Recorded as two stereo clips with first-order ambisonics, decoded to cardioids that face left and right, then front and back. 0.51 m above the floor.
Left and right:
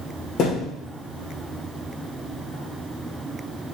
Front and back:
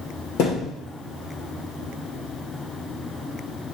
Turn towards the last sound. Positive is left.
turn(degrees=35)